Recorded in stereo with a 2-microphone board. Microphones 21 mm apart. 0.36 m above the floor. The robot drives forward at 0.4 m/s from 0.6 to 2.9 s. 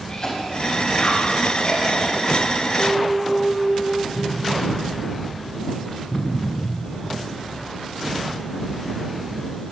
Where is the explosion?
45° left (ahead or behind), 5.5 m.